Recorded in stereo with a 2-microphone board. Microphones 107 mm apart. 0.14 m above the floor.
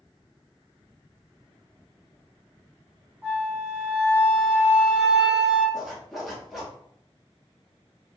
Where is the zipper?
Centre (ahead or behind), 1.1 m.